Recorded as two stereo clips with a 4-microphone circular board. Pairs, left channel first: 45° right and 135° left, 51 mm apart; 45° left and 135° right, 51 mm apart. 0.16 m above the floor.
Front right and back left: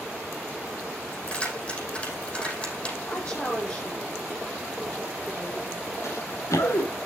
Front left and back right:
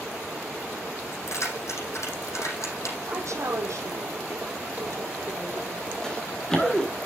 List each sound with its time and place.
1.1 s keys jangling: 25° left, 5.5 m
3.1 s a woman speaking: 110° right, 5 m
6.0 s running footsteps: 35° right, 3 m